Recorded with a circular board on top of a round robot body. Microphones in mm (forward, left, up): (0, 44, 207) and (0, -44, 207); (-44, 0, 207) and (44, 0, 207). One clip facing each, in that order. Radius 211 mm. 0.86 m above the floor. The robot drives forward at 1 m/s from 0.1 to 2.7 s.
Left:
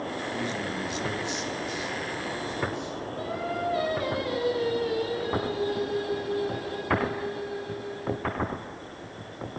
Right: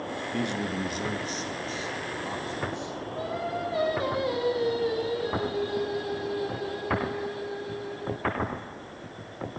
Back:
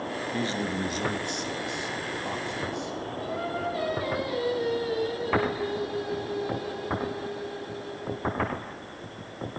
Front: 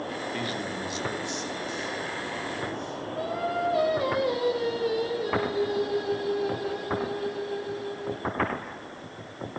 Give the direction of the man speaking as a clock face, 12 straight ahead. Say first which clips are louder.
Right 5 dB, back 3 dB; 4 o'clock.